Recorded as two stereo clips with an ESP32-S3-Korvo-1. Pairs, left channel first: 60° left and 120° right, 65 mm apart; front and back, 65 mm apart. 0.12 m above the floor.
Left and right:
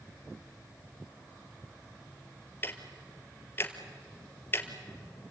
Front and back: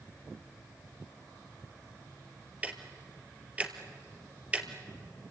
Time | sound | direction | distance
2.6 | ticking | 115° left | 1.7 m